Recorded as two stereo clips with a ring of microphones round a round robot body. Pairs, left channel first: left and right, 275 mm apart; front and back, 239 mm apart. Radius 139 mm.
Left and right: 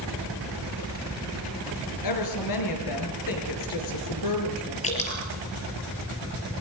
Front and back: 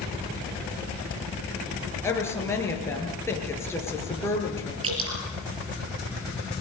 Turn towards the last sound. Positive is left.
turn(degrees=155)